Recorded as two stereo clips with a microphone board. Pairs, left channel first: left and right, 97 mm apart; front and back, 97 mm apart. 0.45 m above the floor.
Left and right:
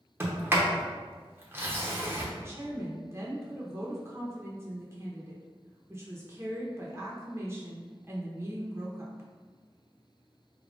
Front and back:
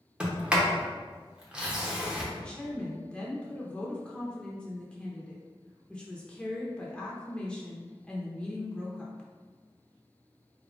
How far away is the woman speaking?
About 0.8 m.